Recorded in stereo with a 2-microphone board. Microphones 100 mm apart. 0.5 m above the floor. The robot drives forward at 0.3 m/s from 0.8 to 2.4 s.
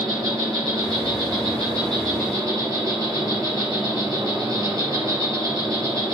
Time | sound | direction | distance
0.0 | an insect | 45° right (ahead or behind) | 4.5 m